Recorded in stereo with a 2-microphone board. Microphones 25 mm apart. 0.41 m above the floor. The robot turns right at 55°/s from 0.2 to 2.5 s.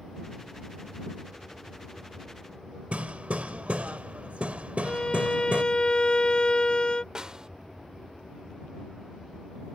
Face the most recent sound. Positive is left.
turn(degrees=-30)  # may be behind; listen again after turning